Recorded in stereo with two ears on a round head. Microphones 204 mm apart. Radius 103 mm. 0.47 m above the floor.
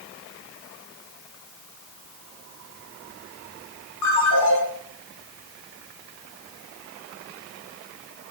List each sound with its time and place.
4.0 s a ringtone: 85° left, 2.5 m